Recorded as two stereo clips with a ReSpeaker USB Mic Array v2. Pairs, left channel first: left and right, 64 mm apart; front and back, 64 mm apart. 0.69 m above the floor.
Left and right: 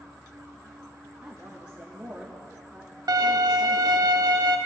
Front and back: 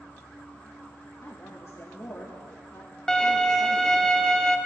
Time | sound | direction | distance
0.0 | an insect | 60° right | 1.5 m
1.2 | a woman speaking | 15° right | 1.0 m
3.1 | a violin | 75° right | 0.5 m